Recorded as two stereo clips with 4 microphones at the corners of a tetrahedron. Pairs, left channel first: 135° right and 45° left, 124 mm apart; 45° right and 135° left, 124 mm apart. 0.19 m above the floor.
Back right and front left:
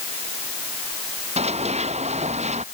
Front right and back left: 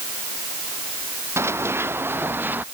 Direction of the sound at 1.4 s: 65° left.